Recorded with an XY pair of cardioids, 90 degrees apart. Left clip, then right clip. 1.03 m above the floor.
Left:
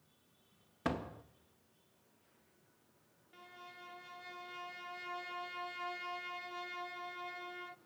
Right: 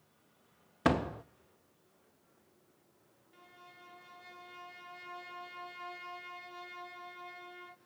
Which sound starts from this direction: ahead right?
A door slam, at 0.8 s.